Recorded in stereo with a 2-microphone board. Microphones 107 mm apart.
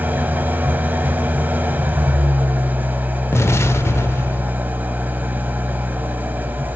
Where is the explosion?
25° left (ahead or behind), 0.6 m.